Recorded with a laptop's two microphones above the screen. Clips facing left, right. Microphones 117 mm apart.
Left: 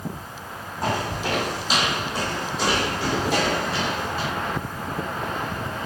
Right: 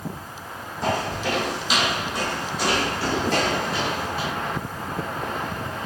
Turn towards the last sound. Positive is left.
turn(degrees=-15)  # may be behind; listen again after turning